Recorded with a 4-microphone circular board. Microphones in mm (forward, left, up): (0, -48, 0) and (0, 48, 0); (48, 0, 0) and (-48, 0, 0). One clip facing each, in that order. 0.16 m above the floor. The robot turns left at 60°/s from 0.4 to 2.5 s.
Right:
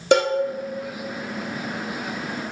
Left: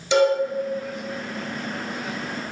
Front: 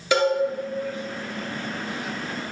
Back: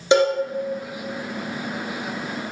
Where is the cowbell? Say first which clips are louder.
Even, back 4 dB; 115° right, 1.0 m.